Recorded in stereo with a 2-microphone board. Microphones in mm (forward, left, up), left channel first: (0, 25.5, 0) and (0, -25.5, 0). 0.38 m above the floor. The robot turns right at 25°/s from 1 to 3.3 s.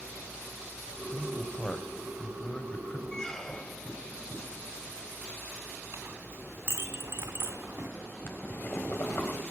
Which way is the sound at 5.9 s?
55° right (ahead or behind).